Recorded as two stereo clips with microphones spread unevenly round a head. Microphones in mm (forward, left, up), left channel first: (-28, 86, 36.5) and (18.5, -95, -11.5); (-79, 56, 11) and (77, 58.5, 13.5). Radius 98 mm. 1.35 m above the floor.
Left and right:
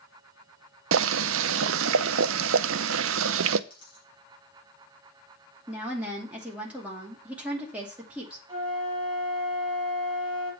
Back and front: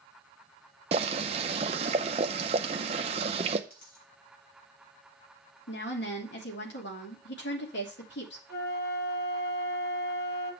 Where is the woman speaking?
160° right, 2.5 m.